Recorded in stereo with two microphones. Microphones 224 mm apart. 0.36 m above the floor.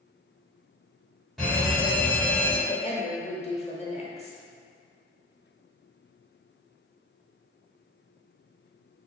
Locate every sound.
1.4 s a fire alarm: centre (ahead or behind), 2.0 m
2.7 s a woman speaking: 30° left (ahead or behind), 0.9 m